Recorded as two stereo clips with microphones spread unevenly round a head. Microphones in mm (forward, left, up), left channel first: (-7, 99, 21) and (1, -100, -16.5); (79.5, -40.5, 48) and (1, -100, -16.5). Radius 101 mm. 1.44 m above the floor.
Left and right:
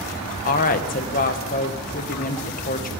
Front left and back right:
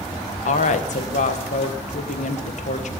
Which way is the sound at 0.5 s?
40° left.